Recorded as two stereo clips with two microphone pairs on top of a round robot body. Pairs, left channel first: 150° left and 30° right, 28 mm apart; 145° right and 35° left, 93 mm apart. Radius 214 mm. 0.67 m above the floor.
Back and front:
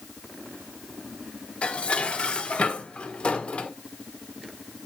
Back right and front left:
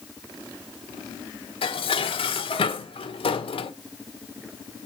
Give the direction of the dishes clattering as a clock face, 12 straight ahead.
5 o'clock.